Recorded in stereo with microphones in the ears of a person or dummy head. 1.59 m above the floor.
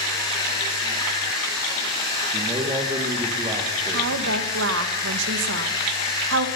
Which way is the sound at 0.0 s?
25° left (ahead or behind).